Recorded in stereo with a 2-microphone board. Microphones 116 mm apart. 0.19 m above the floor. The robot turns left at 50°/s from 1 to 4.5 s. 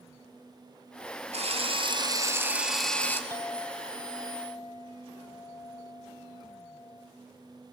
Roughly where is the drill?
Right.